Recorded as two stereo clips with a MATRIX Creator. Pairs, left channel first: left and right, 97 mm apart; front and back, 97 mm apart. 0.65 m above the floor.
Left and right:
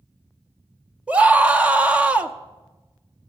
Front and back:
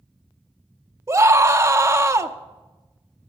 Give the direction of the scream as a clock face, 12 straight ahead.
5 o'clock.